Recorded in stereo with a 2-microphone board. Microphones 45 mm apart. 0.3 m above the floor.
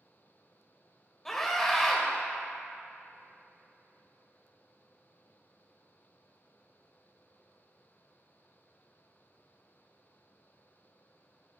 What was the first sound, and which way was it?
A scream, 5° left (ahead or behind).